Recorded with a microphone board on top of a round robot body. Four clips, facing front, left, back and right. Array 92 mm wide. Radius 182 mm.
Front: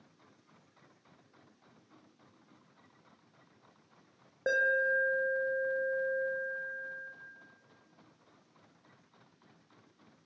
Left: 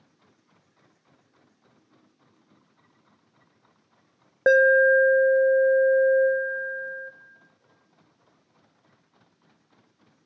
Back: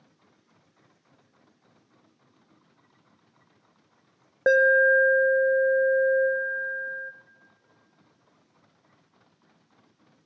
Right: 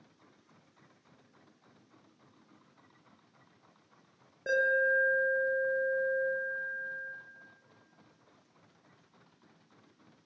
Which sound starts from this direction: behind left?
An alarm, at 4.5 s.